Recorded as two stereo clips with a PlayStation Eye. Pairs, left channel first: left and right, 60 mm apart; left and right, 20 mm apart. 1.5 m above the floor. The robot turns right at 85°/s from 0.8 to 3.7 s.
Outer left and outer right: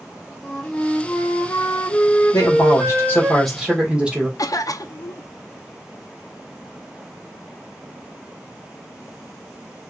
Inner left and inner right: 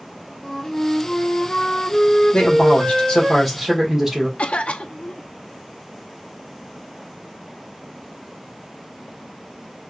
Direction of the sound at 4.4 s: 65° left (ahead or behind).